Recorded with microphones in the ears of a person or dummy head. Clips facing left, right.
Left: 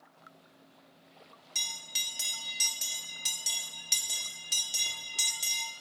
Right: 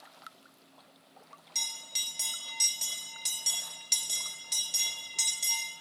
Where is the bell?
5° left (ahead or behind), 0.6 m.